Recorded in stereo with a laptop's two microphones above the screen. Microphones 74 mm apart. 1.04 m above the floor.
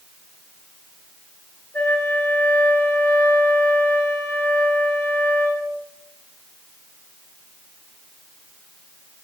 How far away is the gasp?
No gasp in this recording.